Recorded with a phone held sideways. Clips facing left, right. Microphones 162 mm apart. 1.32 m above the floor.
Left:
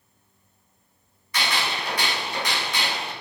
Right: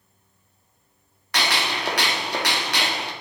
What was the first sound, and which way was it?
A gunshot, 75° right (ahead or behind).